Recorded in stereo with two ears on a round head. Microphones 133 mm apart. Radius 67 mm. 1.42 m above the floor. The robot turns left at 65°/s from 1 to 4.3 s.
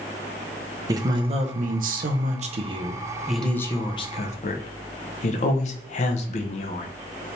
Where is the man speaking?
25° right, 0.6 m; by 6.9 s 120° left, 0.6 m.